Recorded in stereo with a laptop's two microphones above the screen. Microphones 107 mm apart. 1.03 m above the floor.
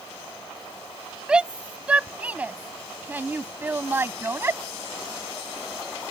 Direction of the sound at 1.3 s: 10° right (ahead or behind).